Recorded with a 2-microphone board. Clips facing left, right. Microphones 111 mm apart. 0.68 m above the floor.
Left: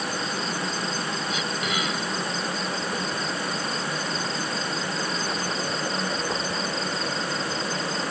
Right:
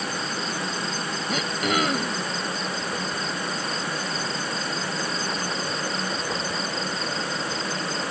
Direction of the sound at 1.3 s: 60° right (ahead or behind).